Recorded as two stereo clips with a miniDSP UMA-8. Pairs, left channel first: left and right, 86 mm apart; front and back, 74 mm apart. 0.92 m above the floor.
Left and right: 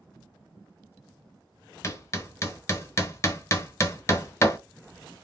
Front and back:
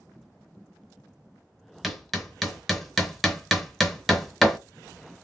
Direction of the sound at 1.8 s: 85° left.